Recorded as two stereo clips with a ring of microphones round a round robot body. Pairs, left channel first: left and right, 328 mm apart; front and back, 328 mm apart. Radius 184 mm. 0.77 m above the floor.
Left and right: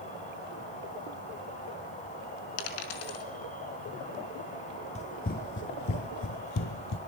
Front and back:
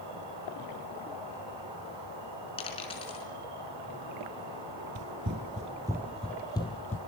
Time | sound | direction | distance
0.0 | an insect | 160° left | 8.5 m
2.6 | a dropped coin | 75° left | 4 m
5.0 | running footsteps | 150° left | 1.0 m